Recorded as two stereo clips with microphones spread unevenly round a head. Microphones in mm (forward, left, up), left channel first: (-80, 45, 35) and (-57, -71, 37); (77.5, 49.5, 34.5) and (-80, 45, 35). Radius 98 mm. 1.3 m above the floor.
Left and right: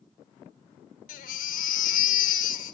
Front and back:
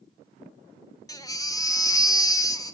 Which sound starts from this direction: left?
A baby crying, at 1.1 s.